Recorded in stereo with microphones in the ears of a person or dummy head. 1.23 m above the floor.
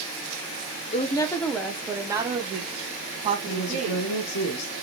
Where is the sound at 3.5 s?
65° left (ahead or behind), 1.2 m.